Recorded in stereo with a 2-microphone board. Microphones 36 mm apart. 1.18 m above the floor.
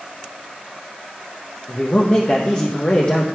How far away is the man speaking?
About 0.9 m.